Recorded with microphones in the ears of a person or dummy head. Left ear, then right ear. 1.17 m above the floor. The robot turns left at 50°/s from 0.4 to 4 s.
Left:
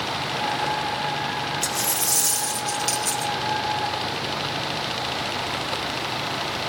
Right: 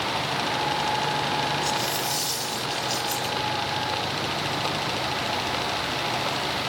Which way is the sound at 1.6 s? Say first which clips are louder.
Even; 130° left.